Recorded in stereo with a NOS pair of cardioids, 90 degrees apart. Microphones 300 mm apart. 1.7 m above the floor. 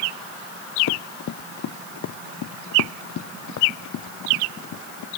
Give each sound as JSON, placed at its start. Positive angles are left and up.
{"t": 0.9, "sound": "running footsteps", "azimuth_deg": 65}